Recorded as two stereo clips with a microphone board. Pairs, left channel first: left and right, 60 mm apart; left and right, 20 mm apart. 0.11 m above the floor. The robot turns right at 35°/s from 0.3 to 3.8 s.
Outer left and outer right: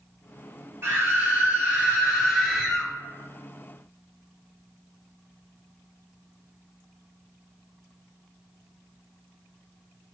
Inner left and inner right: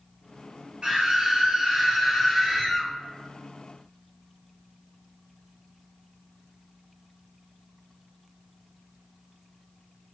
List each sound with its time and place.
0.8 s a scream: 65° right, 1.9 m; by 2.9 s 10° left, 1.9 m